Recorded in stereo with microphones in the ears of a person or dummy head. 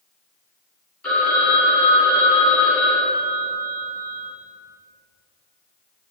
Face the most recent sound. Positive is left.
turn(degrees=5)  # may be behind; listen again after turning